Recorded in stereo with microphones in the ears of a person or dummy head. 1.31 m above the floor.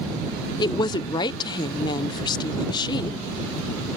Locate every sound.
0.6 s a woman speaking: 20° left (ahead or behind)